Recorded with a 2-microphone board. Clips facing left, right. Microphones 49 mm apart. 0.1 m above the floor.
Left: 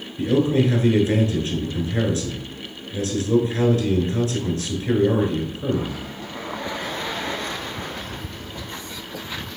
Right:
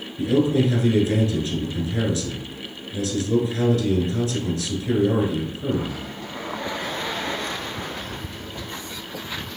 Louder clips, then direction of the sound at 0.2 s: Even; 35° left (ahead or behind).